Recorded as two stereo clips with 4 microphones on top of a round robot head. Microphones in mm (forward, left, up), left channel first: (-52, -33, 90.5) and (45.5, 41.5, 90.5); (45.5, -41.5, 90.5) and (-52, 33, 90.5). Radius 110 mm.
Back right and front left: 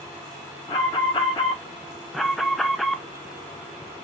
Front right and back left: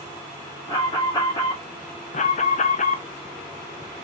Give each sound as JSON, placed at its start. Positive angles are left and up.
{"t": 0.7, "sound": "an alarm", "azimuth_deg": -95, "distance_m": 1.8}
{"t": 2.1, "sound": "an alarm", "azimuth_deg": -55, "distance_m": 0.5}